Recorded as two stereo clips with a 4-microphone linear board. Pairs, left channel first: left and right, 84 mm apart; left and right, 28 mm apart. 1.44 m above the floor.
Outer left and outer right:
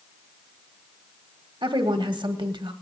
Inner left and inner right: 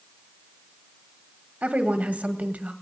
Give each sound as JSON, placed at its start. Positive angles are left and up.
{"t": 1.6, "sound": "a woman speaking", "side_deg": -70, "distance_m": 1.2}